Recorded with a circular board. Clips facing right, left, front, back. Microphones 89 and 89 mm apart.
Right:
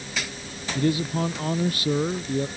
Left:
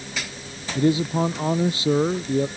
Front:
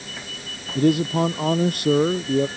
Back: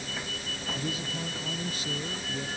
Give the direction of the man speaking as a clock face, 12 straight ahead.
11 o'clock.